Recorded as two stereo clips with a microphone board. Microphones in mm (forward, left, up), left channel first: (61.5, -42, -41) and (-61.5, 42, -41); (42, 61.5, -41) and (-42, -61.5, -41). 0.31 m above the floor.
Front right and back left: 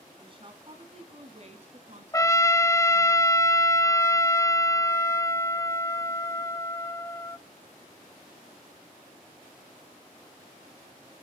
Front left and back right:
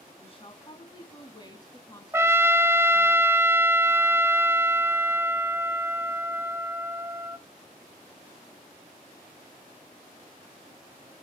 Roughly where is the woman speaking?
Left.